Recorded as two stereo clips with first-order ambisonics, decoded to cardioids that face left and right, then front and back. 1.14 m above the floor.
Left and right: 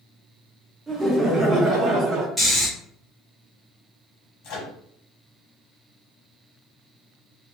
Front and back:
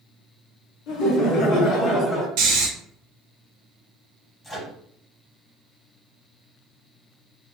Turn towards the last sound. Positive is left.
turn(degrees=80)